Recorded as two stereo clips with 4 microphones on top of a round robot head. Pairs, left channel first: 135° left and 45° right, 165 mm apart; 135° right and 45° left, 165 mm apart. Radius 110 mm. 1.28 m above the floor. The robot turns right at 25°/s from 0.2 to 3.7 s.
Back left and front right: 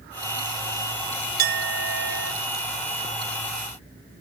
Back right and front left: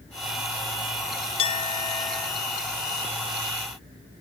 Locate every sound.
1.4 s a clink: 80° right, 0.5 m; by 2.3 s 55° right, 0.5 m